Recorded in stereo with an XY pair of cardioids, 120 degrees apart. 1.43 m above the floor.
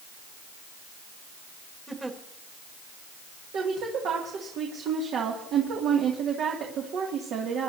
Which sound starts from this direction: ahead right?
A woman speaking, at 3.5 s.